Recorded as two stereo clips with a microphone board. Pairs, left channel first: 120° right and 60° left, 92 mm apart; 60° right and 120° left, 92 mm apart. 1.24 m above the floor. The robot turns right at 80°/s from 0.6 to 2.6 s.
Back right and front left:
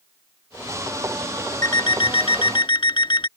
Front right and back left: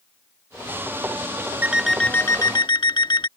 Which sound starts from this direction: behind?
An alarm clock, at 1.6 s.